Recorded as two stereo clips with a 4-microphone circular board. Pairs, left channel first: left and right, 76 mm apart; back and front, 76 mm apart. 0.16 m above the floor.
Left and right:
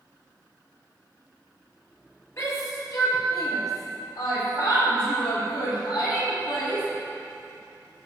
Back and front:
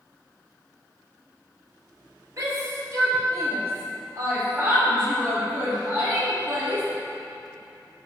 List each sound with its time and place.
2.4 s a shout: 45° left, 4 m; by 6.8 s 65° left, 7.5 m